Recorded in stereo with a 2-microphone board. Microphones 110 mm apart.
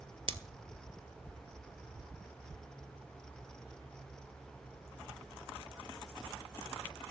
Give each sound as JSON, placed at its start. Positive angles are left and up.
{"t": 0.3, "sound": "scissors", "side_deg": -55, "distance_m": 0.7}